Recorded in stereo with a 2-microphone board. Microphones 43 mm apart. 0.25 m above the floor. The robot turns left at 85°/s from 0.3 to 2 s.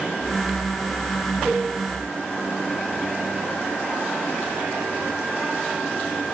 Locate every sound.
1.4 s a cowbell: 5° left (ahead or behind), 1.0 m; by 1.6 s 5° right (ahead or behind), 1.0 m